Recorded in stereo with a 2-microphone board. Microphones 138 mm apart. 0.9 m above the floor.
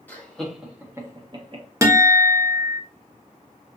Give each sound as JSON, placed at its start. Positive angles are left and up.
{"t": 0.1, "sound": "laughter", "side_deg": 10, "distance_m": 1.2}
{"t": 1.8, "sound": "a guitar", "side_deg": -20, "distance_m": 0.6}